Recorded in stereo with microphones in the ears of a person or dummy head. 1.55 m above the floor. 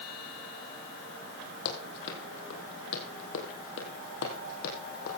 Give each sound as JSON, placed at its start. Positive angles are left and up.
{"t": 1.6, "sound": "running footsteps", "side_deg": 55, "distance_m": 3.5}